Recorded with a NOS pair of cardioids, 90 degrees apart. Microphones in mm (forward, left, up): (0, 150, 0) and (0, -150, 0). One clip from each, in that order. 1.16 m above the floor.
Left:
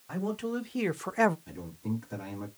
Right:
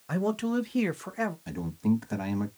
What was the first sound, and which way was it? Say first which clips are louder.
A man speaking: right 4 dB; 35° right.